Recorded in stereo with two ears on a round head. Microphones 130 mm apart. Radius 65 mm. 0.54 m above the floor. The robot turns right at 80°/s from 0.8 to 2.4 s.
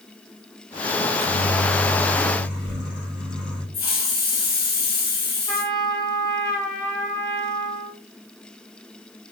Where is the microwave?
65° right, 2.0 m; by 3.6 s 45° left, 2.0 m.